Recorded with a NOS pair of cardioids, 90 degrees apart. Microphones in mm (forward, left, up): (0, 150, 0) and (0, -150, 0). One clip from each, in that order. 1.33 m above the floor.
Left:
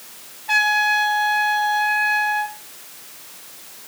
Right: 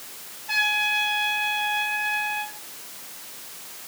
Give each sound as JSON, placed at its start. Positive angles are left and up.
{"t": 0.5, "sound": "a trumpet", "azimuth_deg": 45, "distance_m": 5.0}